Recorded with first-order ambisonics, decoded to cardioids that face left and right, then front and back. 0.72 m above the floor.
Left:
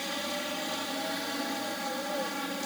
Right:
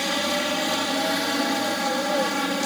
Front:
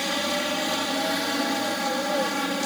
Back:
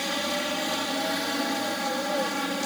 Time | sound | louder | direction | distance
0.0 | a helicopter | right 10 dB, front 2 dB | 80° right | ?